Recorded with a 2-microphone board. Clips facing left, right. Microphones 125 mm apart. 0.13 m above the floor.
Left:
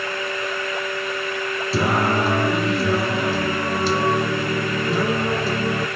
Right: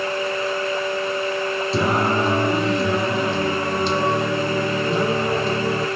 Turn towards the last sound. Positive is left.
turn(degrees=5)  # may be behind; listen again after turning